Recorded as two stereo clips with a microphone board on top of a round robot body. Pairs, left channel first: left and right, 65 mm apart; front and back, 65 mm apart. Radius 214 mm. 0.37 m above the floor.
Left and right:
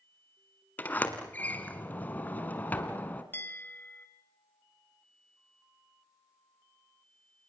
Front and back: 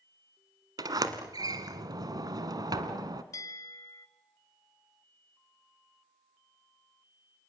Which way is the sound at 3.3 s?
35° left.